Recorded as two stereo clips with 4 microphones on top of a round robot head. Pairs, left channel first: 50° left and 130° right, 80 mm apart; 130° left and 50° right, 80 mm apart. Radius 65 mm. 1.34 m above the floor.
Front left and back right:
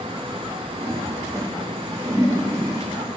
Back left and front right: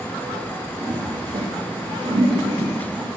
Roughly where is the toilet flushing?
Right.